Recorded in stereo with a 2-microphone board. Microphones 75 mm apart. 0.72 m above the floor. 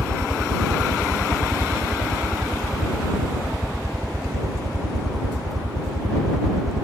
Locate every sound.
0.0 s a helicopter: 50° right (ahead or behind)